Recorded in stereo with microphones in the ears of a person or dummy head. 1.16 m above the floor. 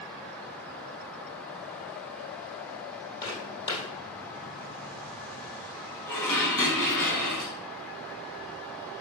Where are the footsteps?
20° left (ahead or behind), 2 m.